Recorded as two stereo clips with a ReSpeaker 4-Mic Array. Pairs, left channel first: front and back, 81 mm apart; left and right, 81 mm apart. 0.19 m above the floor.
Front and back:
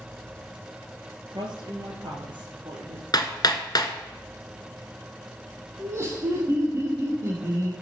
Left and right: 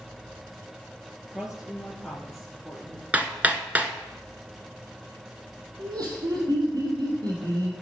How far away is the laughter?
About 4.5 m.